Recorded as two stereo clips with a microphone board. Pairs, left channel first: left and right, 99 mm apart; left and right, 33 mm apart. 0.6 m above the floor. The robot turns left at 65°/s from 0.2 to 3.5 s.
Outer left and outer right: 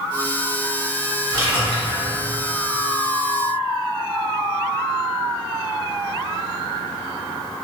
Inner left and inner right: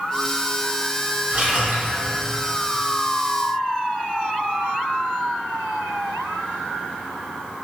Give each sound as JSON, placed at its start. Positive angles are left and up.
{"t": 1.3, "sound": "a splash", "azimuth_deg": -60, "distance_m": 1.1}